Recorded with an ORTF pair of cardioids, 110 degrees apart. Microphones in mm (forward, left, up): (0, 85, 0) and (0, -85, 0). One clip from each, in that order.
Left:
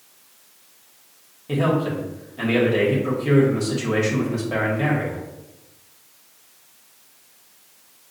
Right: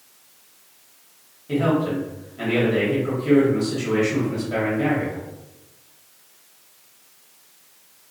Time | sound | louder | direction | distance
1.5 | a man speaking | even | 25° left | 1.4 m